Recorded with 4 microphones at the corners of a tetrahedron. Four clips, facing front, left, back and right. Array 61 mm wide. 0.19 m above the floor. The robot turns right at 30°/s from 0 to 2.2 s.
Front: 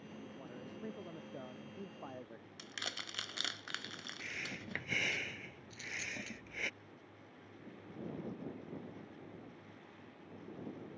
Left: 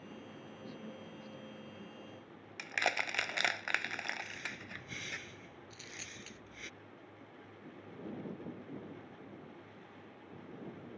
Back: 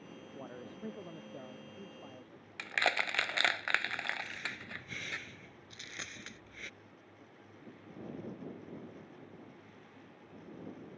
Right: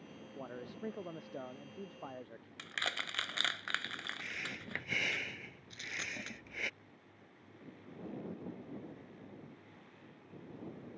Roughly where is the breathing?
Ahead right.